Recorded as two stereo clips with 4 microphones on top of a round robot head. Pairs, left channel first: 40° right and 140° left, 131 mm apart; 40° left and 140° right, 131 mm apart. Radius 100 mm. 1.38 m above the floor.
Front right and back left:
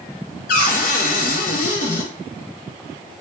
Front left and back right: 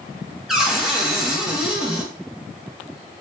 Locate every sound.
0.5 s a cupboard door: 55° right, 0.6 m